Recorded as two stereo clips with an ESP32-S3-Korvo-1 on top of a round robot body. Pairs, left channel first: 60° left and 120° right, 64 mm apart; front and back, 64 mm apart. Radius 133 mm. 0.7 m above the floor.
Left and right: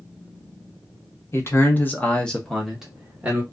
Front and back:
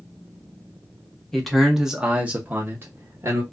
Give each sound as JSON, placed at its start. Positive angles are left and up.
{"t": 1.3, "sound": "a man speaking", "azimuth_deg": 85, "distance_m": 1.2}